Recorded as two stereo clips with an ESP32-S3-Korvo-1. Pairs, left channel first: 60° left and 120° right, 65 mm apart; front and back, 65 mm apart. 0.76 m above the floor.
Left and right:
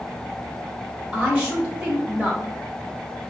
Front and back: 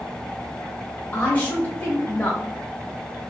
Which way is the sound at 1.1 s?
45° right.